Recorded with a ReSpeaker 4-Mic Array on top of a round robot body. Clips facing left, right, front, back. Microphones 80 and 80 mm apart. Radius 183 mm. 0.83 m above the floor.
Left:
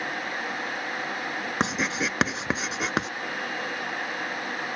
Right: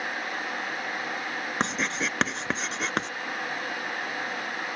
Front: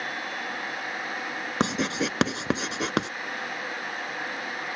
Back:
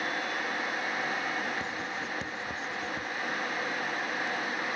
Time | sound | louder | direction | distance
1.6 | writing | left 2 dB, front 9 dB | 5° left | ?